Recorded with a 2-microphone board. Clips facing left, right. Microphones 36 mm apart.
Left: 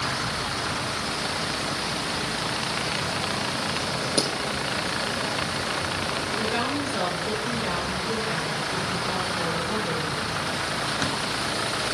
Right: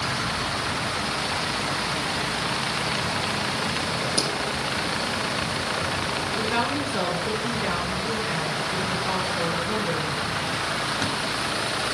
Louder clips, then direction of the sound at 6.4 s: Right 2 dB; 30° right (ahead or behind).